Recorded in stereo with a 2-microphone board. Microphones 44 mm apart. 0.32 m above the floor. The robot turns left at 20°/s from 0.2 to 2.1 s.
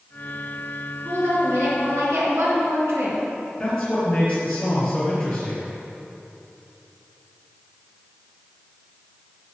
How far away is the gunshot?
I don't hear a gunshot.